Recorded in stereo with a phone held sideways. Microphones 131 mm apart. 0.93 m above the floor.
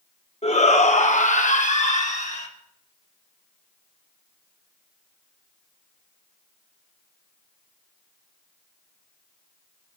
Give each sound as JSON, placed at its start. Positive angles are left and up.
{"t": 0.4, "sound": "a shout", "side_deg": 55, "distance_m": 1.7}